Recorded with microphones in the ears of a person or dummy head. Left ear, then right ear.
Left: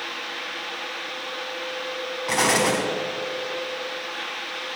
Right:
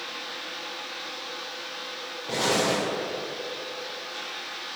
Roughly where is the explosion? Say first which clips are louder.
Left 4 dB; left.